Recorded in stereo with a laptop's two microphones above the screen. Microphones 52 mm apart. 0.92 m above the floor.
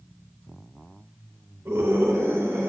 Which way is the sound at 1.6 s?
60° right (ahead or behind).